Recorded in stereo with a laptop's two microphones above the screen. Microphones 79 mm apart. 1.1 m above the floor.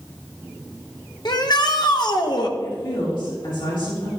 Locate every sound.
1.2 s a shout: 60° left (ahead or behind), 1.4 m
2.6 s a woman speaking: 80° left, 4 m